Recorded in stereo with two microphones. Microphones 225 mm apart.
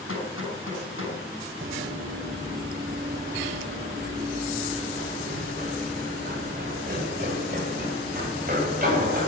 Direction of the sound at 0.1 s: 75° left (ahead or behind).